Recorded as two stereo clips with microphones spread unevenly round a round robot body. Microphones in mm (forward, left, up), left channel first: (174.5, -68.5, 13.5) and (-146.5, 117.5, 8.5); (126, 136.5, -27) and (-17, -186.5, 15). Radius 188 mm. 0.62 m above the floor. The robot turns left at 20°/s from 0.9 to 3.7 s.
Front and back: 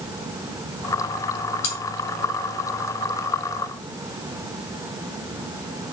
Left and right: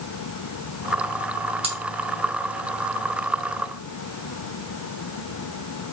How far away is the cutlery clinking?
About 2.5 m.